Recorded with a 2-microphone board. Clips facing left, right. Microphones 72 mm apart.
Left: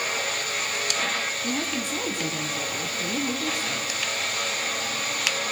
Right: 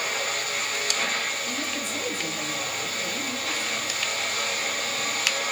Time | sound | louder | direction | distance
1.4 | a woman speaking | left 3 dB | 55° left (ahead or behind) | 3.5 m